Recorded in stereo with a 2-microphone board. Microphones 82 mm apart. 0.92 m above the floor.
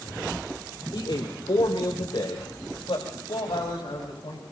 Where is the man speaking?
75° left (ahead or behind), 2.5 m; by 4.4 s 85° left, 6 m.